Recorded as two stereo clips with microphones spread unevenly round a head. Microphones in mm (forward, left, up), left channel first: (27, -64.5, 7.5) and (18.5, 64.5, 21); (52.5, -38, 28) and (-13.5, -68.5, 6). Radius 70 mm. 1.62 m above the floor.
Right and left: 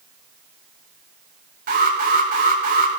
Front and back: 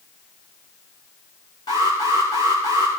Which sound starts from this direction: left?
An alarm, at 1.7 s.